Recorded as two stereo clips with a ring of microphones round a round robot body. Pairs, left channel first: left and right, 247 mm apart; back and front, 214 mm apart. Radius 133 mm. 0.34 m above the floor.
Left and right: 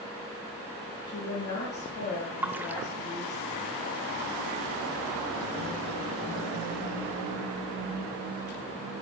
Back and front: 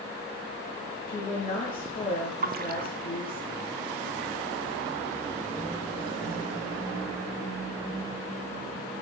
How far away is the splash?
About 0.6 m.